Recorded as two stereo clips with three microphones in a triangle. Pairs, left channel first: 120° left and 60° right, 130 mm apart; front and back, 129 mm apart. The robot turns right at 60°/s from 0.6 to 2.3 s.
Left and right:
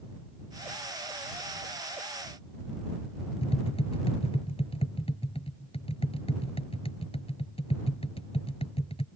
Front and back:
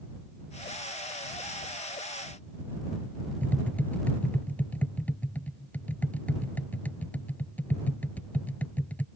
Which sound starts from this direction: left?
Tapping, at 3.4 s.